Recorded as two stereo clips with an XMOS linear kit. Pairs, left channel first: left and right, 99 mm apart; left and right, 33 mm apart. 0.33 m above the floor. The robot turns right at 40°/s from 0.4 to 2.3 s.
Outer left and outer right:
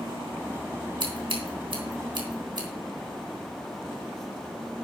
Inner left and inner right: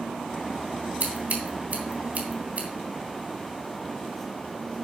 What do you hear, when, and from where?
1.0 s scissors: 55° right (ahead or behind), 2.5 m; by 2.7 s 50° right (ahead or behind), 2.5 m